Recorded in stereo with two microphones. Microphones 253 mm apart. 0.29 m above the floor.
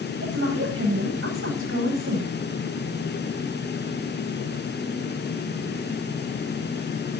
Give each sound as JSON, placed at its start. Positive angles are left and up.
{"t": 0.2, "sound": "a woman speaking", "side_deg": -55, "distance_m": 10.0}